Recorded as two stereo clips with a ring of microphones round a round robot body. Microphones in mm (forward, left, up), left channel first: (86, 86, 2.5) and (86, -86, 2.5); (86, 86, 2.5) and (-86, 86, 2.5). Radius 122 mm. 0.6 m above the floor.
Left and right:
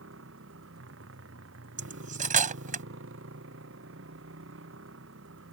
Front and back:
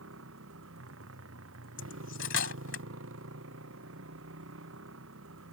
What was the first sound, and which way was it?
A motorcycle, 135° right.